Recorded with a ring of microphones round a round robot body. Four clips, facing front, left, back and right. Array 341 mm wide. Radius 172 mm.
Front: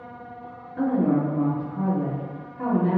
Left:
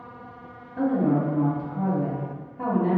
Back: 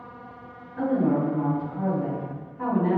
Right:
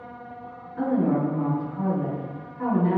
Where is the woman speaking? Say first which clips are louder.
Even, front 1 dB; 70° left, 1.7 m.